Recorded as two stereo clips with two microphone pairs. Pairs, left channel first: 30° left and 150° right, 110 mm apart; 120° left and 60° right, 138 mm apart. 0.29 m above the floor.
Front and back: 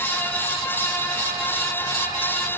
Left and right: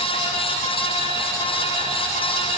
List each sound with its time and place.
Only background noise.